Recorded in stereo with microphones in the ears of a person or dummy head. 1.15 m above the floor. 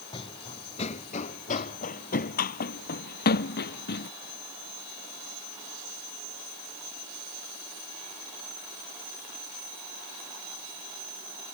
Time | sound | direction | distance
0.1 | running footsteps | 30° left (ahead or behind) | ?